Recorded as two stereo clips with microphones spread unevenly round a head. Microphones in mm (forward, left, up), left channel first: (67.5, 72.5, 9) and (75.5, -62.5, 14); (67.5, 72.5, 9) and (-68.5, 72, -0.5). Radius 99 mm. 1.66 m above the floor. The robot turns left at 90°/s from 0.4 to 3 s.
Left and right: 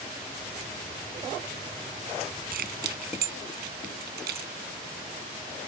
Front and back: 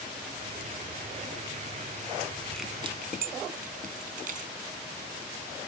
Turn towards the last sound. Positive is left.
turn(degrees=-125)